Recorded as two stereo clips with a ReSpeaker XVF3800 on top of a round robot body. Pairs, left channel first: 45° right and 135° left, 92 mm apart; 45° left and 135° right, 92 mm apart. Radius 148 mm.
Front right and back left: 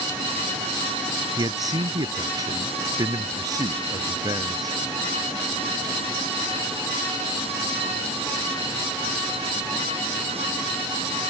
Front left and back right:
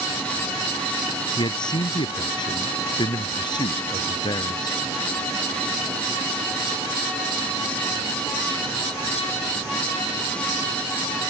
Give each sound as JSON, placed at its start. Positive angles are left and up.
{"t": 1.4, "sound": "a man speaking", "azimuth_deg": 85}